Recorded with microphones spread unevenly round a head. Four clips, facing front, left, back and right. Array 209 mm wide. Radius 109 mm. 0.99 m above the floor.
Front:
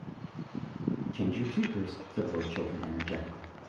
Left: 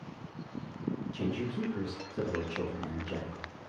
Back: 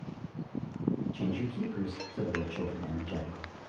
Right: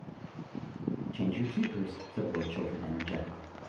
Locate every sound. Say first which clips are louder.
1.1 s a man speaking: right 4 dB, front 3 dB; 25° right, 1.4 m